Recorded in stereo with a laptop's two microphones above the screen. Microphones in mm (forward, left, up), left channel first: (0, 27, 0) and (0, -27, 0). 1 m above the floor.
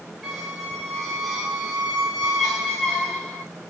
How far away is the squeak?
About 5.5 m.